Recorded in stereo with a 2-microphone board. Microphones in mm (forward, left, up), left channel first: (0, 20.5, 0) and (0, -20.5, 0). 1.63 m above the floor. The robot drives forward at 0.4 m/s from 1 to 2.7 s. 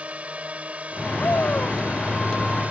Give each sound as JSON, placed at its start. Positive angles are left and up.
{"t": 0.0, "sound": "a drone", "side_deg": -30}
{"t": 1.2, "sound": "a shout", "side_deg": 60}